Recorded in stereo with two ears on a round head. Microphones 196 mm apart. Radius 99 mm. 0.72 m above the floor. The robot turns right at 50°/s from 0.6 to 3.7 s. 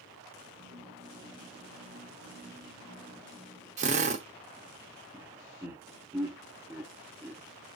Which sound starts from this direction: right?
A drill, at 3.8 s.